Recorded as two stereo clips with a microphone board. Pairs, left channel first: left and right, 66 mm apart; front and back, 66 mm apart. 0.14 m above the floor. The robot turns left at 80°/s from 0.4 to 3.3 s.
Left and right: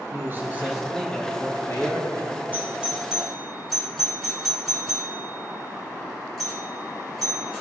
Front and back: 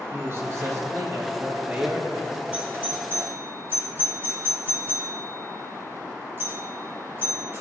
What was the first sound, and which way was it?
A man speaking, 140° right.